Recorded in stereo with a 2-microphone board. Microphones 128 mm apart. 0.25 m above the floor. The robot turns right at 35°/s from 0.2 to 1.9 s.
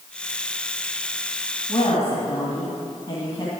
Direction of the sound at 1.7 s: 40° left (ahead or behind).